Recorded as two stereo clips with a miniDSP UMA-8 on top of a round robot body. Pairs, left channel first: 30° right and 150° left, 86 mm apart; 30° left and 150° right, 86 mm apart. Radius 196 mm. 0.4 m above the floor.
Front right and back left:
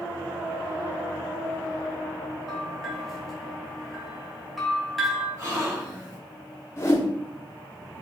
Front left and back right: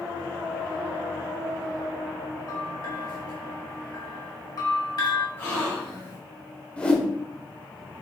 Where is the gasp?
95° left, 2 m.